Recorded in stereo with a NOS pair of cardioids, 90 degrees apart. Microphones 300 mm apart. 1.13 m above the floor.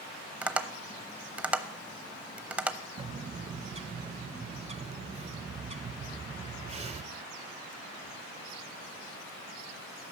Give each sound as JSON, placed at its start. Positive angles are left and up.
{"t": 0.4, "sound": "tapping", "azimuth_deg": -5, "distance_m": 0.8}
{"t": 3.0, "sound": "a bird", "azimuth_deg": -20, "distance_m": 0.7}